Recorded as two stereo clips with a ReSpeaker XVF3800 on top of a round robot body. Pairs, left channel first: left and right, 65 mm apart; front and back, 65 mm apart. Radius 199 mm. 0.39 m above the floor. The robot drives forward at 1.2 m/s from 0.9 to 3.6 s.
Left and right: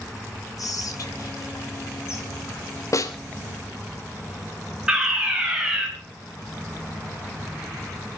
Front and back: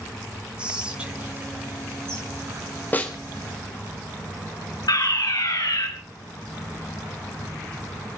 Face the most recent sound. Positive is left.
turn(degrees=-10)